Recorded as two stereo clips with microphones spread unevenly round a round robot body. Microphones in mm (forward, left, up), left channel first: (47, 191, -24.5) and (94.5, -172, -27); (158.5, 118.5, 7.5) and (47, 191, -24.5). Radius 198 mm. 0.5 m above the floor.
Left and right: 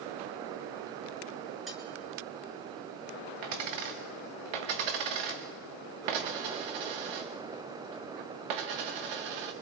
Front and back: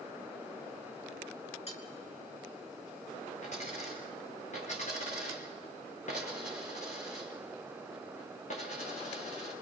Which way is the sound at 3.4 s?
85° right.